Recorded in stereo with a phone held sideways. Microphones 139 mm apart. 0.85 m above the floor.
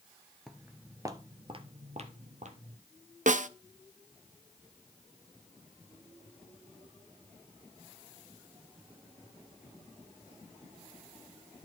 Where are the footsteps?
Centre (ahead or behind), 0.8 m; by 2.8 s 65° right (ahead or behind), 1.7 m.